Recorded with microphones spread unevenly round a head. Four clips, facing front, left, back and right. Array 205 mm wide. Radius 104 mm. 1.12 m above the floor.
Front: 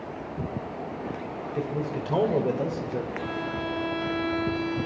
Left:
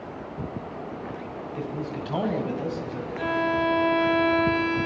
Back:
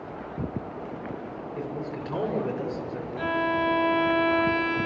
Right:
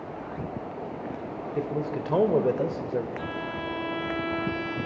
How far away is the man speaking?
About 4 m.